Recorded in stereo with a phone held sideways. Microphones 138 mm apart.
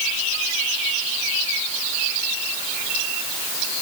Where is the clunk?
I don't hear a clunk.